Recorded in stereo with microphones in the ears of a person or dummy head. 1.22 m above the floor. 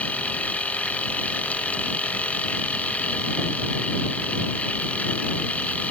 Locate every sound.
0.0 s a machine running: 10° left (ahead or behind)